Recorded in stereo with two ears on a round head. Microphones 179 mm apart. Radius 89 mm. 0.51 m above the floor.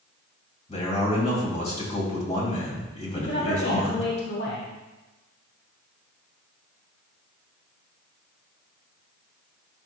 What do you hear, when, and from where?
0.7 s a man speaking: 35° left (ahead or behind), 2.5 m
3.1 s a woman speaking: 55° left (ahead or behind), 1.3 m